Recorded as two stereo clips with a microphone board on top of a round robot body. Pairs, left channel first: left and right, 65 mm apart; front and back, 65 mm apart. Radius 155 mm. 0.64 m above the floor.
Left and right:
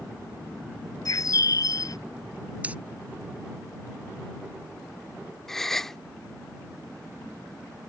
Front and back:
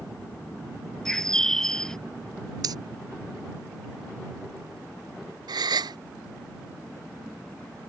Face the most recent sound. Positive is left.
turn(degrees=175)